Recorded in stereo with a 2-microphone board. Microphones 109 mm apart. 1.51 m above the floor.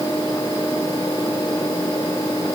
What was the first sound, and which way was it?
Only background noise.